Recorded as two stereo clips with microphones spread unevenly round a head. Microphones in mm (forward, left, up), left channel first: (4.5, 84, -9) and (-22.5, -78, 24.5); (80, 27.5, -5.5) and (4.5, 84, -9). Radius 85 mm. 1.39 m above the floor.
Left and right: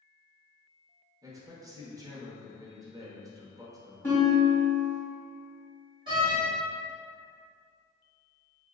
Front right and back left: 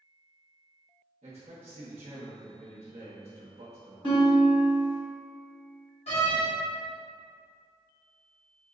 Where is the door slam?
35° right, 1.7 m.